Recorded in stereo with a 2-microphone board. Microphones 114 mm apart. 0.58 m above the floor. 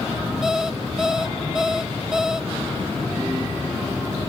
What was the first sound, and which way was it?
An alarm clock, 5° right (ahead or behind).